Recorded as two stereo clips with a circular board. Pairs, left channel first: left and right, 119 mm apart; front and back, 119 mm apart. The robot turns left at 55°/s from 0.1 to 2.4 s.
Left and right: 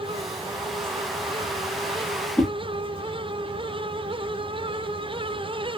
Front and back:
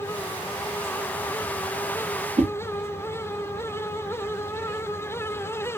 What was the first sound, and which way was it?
A whoosh, 165° left.